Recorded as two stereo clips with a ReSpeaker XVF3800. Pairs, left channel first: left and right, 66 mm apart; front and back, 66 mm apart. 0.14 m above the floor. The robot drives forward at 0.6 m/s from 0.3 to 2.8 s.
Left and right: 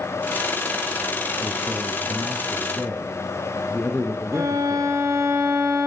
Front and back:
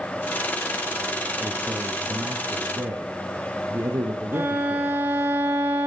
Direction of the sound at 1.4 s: 155° left.